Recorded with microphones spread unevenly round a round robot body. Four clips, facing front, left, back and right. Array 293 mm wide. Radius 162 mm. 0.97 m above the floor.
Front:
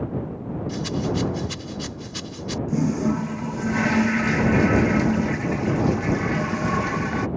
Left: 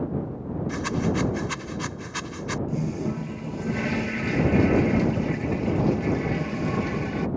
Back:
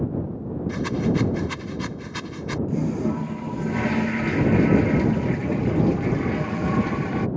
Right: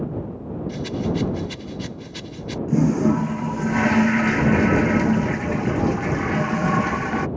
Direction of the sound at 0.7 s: 115° left.